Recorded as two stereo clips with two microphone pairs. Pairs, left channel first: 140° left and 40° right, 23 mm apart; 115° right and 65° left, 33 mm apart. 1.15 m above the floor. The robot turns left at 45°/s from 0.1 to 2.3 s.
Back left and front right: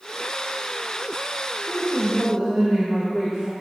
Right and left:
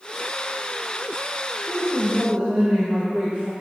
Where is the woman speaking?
50° left, 1.0 m; by 3.5 s 25° left, 1.0 m.